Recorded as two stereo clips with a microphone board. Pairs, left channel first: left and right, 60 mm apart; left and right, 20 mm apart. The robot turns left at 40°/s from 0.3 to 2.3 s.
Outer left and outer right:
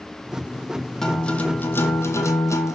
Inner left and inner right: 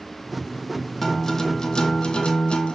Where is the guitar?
175° left, 1.3 m; by 2.8 s 120° left, 1.3 m.